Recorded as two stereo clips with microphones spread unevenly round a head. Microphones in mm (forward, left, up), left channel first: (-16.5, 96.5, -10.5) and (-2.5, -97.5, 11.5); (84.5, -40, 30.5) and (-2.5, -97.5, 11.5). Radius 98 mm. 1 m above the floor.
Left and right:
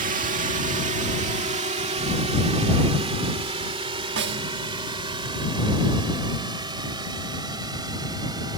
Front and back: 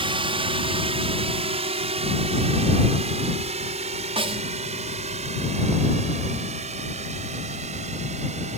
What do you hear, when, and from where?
0.0 s a drone: 135° right; by 8.6 s 155° right
4.2 s a snare drum: 120° right